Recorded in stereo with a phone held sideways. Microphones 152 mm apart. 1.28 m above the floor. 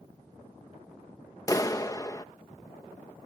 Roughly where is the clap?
Left.